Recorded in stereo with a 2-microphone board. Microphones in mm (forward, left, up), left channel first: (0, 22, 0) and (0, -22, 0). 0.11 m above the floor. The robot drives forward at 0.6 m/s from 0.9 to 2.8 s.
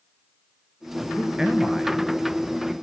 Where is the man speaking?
15° right (ahead or behind), 1.1 m; by 2.7 s 10° right (ahead or behind), 1.6 m.